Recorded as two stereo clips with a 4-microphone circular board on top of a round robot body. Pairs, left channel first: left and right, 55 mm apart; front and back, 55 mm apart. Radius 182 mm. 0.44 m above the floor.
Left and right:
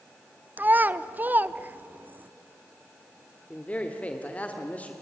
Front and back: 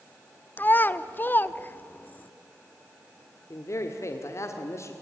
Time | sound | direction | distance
0.6 | a child speaking | 45° right | 1.0 m
3.5 | a man speaking | 25° left | 2.0 m